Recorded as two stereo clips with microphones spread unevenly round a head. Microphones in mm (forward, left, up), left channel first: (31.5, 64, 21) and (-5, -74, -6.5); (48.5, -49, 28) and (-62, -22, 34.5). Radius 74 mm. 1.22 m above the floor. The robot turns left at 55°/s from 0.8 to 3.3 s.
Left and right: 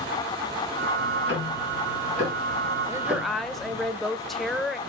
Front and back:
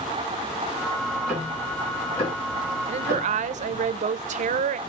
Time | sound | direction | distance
1.0 | ticking | 100° left | 2 m
2.9 | a woman speaking | 165° right | 0.5 m